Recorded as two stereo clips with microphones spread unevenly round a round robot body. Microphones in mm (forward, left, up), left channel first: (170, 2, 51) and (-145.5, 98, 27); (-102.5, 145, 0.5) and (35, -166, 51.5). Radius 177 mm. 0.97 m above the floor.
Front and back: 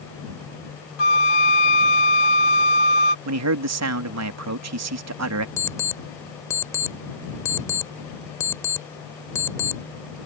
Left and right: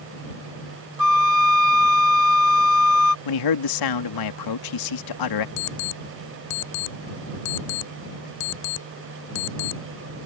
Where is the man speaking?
125° left.